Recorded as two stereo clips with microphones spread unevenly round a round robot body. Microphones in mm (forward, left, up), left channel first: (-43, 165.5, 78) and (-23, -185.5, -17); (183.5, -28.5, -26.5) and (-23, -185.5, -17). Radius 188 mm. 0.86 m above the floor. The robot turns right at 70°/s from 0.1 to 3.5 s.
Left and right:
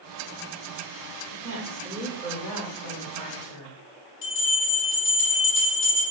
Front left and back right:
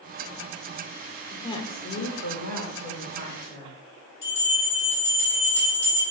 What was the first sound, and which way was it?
A woman speaking, 50° right.